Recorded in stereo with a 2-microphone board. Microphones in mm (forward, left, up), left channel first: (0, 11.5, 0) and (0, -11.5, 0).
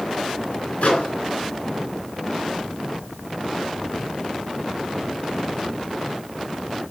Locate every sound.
0.8 s a microwave: 70° left (ahead or behind), 3.5 m